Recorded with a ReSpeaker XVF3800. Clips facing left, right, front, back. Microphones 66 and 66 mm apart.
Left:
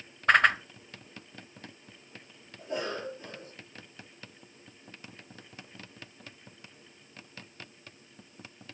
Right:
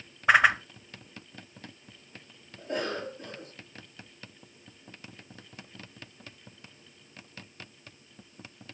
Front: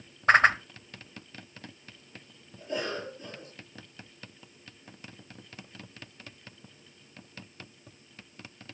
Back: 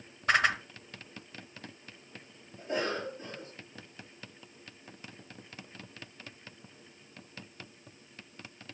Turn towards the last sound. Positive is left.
turn(degrees=-125)